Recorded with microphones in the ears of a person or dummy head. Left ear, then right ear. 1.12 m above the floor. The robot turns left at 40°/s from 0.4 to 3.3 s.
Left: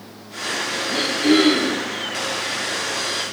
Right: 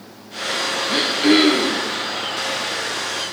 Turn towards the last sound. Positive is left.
turn(degrees=135)